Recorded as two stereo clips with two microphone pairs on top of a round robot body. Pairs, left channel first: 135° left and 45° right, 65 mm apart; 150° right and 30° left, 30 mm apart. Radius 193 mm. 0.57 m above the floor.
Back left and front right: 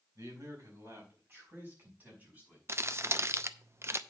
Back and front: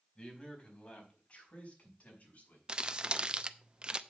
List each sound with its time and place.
0.1 s a man speaking: 85° right, 4.5 m; by 2.6 s 115° right, 5.5 m
2.7 s crumpling: 20° right, 1.0 m